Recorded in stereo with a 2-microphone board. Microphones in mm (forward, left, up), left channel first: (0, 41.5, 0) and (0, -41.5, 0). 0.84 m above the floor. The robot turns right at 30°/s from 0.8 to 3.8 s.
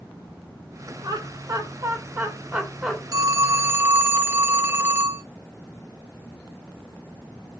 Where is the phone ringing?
45° right (ahead or behind), 0.9 m; by 5.2 s 25° right (ahead or behind), 0.9 m.